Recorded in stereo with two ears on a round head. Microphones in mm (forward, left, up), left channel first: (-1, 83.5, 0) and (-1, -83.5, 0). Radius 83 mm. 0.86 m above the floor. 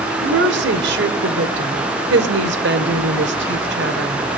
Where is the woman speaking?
65° right (ahead or behind), 3 m.